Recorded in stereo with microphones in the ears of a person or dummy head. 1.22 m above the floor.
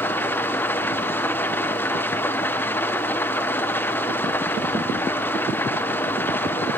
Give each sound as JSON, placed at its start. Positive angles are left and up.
{"t": 0.0, "sound": "an engine running", "side_deg": 15, "distance_m": 1.0}